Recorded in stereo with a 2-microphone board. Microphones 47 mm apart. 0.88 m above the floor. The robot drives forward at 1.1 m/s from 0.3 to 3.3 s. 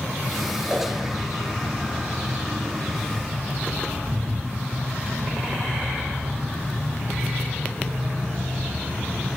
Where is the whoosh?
15° right (ahead or behind), 6.5 m.